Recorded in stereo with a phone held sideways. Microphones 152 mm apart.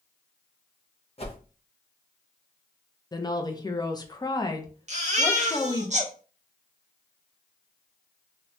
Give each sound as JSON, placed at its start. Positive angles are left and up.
{"t": 1.2, "sound": "a whoosh", "side_deg": 40, "distance_m": 0.8}
{"t": 3.1, "sound": "a woman speaking", "side_deg": 25, "distance_m": 0.5}
{"t": 4.9, "sound": "a baby crying", "side_deg": -45, "distance_m": 0.7}